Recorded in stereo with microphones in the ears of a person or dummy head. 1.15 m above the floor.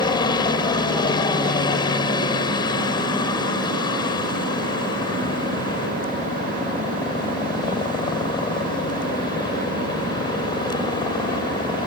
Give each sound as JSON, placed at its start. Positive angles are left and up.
{"t": 0.0, "sound": "a helicopter", "side_deg": 25}